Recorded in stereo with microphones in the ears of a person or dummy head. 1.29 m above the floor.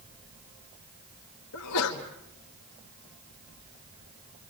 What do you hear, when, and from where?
1.5 s a sneeze: 75° left (ahead or behind), 1.8 m